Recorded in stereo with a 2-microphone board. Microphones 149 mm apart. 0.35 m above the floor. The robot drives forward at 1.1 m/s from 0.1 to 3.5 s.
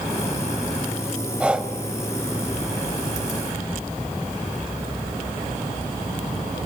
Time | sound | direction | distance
1.4 | breathing | 10° right (ahead or behind) | 1.3 m